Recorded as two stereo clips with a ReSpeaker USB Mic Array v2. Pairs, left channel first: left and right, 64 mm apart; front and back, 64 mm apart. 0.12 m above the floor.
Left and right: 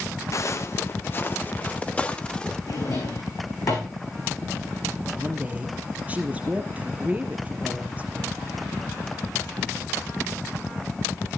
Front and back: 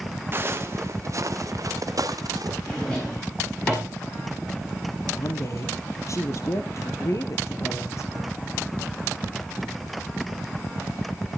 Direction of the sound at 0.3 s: 130° left.